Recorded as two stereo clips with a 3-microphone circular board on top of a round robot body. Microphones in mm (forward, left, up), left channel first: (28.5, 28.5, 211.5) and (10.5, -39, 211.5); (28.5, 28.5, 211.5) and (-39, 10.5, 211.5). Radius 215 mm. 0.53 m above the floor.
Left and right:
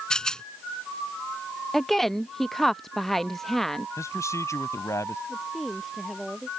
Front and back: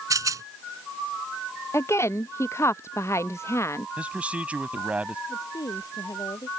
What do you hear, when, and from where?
0.1 s a rattle: 155° left
1.7 s a woman speaking: 10° right
4.0 s a man speaking: 125° left
5.3 s a woman speaking: 15° right